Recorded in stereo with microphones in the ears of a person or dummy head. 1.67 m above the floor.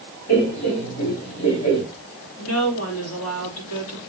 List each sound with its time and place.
0.3 s laughter: 80° left, 4 m
2.4 s a woman speaking: 80° left, 3 m